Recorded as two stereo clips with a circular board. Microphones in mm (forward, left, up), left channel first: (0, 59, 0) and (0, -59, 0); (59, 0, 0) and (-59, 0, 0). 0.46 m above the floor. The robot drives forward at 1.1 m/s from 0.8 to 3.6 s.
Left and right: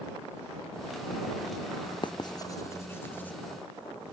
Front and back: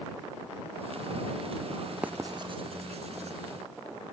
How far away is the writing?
About 0.6 m.